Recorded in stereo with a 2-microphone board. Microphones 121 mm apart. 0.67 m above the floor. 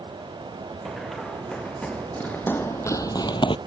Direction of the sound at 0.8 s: Centre (ahead or behind).